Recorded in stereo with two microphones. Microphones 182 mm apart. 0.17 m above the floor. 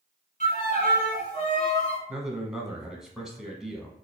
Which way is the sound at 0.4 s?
45° left (ahead or behind).